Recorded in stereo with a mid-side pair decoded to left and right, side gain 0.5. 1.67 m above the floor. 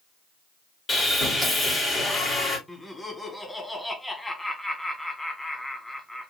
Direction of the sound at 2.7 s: 10° left.